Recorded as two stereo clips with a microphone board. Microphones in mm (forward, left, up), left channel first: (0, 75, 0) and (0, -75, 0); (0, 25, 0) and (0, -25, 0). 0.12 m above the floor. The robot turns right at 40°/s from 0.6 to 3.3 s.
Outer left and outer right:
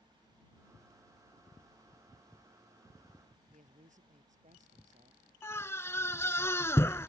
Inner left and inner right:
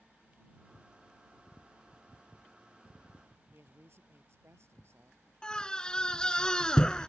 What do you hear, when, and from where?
3.5 s a woman speaking: 55° right (ahead or behind)
5.4 s a scream: 15° left (ahead or behind)